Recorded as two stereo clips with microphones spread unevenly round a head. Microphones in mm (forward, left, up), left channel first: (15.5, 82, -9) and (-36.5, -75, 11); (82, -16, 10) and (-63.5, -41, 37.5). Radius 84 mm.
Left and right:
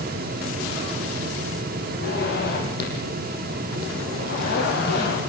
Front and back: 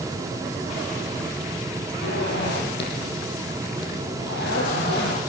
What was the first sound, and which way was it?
A zipper, 35° left.